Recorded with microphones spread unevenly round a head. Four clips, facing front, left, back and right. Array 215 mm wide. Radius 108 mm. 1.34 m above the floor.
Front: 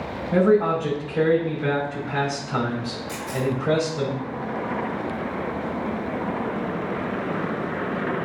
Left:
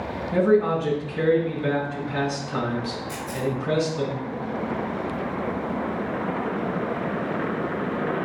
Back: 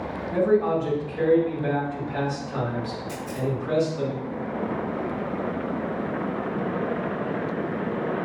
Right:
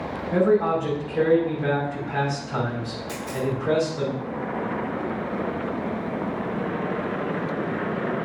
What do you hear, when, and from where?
0.3 s a man speaking: 30° right, 3.5 m
3.1 s a camera shutter: 130° right, 2.5 m